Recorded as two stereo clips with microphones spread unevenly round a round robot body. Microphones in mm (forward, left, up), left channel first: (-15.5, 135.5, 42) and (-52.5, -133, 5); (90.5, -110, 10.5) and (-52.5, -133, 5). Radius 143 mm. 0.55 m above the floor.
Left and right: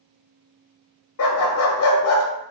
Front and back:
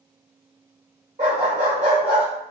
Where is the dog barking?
125° left, 0.6 m.